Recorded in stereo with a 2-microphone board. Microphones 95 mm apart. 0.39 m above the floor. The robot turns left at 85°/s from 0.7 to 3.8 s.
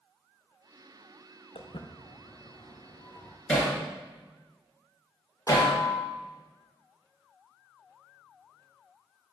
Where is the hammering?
10° left (ahead or behind), 3.5 m; by 5.7 s 35° left (ahead or behind), 3.5 m.